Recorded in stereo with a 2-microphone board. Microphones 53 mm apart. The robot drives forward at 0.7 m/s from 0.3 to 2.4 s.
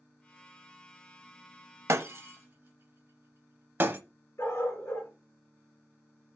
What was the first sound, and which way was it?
Breaking glass, 60° right (ahead or behind).